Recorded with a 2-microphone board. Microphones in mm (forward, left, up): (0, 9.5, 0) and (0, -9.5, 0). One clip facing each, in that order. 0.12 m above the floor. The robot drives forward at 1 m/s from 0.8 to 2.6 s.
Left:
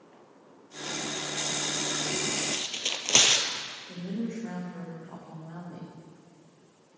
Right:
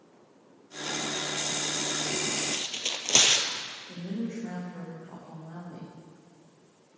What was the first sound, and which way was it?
Tearing paper, 35° left (ahead or behind).